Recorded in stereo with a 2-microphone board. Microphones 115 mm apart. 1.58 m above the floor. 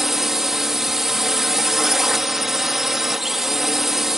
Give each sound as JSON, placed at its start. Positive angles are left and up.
{"t": 0.0, "sound": "a drone", "side_deg": -5}